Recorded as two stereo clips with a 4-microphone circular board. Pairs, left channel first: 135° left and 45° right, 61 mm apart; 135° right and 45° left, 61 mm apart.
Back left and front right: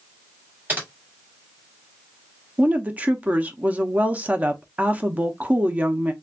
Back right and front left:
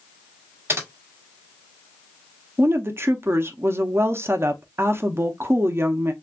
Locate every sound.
0.7 s typing on a keyboard: 5° left, 1.6 m
2.6 s a woman speaking: 15° left, 0.6 m